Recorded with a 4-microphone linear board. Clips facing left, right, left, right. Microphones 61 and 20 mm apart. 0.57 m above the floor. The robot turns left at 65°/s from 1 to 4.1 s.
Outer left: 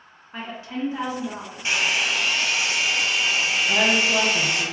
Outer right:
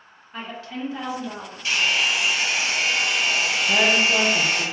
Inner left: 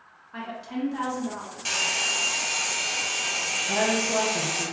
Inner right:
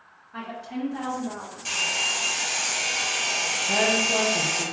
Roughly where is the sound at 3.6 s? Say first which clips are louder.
Outer right 2 dB, inner right 3 dB; right.